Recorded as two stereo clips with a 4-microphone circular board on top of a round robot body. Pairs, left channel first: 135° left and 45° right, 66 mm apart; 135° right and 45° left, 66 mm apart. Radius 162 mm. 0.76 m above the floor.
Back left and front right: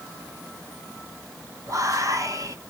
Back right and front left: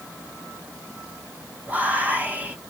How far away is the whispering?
About 1.2 m.